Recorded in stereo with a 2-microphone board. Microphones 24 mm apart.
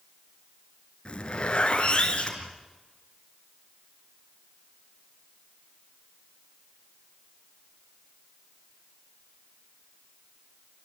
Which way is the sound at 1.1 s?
40° left (ahead or behind).